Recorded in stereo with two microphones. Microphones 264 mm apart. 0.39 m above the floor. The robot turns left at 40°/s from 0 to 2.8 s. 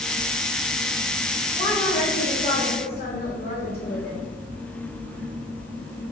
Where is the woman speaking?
140° left, 1.4 m; by 4.2 s 95° left, 1.4 m.